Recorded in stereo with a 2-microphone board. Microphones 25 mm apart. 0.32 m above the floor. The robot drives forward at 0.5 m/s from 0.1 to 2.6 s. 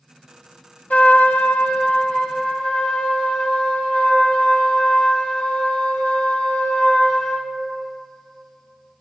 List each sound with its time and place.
0.9 s a trumpet: 70° left (ahead or behind), 0.6 m; by 7.5 s 35° left (ahead or behind), 1.0 m